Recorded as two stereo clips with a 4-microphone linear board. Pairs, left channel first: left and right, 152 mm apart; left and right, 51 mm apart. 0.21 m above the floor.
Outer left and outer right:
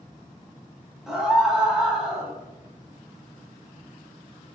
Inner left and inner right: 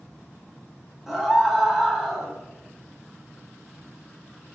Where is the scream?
5° right (ahead or behind), 1.0 m.